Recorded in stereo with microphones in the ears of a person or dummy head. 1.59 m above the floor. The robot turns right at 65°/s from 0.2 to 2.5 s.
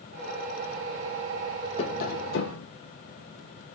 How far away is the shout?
I don't hear a shout.